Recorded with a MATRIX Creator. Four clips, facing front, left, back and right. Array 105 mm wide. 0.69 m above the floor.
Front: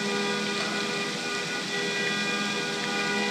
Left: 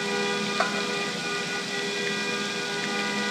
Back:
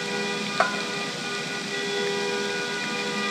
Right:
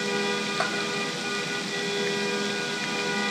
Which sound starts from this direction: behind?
A bell, at 0.6 s.